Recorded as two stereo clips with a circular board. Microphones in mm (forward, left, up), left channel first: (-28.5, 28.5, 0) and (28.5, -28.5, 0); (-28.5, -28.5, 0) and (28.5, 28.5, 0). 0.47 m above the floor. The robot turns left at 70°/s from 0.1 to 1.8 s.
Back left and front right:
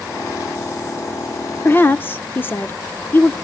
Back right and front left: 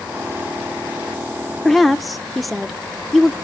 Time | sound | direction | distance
1.6 | a woman speaking | 145° left | 0.7 m